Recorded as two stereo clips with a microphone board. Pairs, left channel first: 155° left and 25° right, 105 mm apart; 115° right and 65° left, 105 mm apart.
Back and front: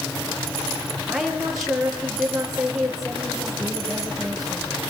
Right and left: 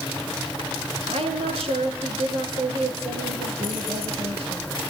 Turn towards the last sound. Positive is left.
turn(degrees=65)